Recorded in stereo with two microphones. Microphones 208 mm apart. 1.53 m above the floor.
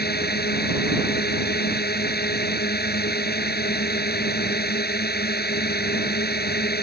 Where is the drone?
50° left (ahead or behind).